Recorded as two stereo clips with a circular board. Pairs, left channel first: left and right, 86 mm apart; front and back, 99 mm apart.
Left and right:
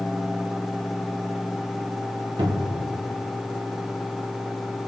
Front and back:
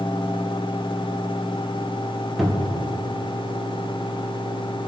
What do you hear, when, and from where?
2.4 s a cupboard door: 90° right, 1.7 m